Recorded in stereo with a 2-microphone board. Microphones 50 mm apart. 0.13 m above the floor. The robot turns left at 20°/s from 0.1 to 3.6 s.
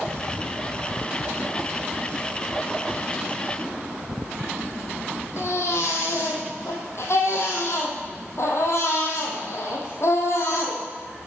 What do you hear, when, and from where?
5.4 s a baby crying: 70° left (ahead or behind), 2.5 m